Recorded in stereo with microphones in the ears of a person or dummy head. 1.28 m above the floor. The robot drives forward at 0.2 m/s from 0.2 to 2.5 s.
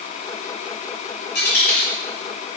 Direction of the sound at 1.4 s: 65° left (ahead or behind).